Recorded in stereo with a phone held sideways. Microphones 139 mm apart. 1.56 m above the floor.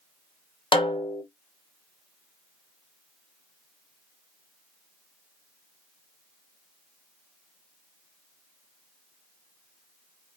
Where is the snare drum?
35° left (ahead or behind), 1.4 m.